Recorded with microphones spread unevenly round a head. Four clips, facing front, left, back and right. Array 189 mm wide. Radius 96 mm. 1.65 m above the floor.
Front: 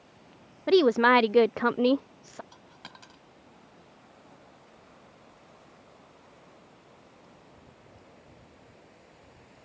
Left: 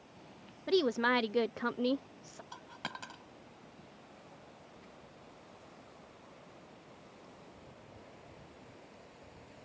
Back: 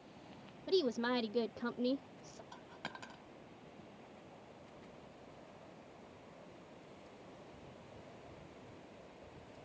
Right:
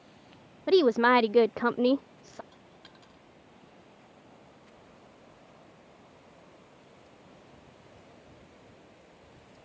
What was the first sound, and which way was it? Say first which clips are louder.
A woman speaking: right 8 dB, front 14 dB; 35° right.